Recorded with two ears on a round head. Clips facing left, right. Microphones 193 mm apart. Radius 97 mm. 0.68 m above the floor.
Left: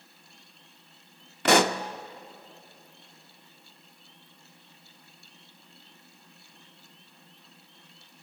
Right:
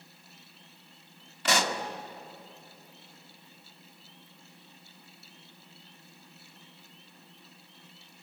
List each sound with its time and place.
1.4 s a pop: 45° left (ahead or behind), 0.7 m